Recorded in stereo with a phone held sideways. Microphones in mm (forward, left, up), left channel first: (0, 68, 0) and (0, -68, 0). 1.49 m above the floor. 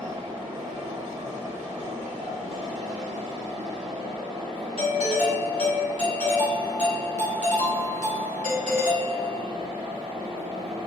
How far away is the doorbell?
About 1.8 m.